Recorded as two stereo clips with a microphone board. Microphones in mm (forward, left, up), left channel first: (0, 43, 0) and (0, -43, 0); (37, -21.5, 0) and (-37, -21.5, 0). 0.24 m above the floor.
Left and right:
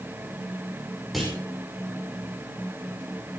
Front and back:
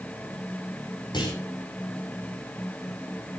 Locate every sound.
1.1 s a clunk: straight ahead, 7.5 m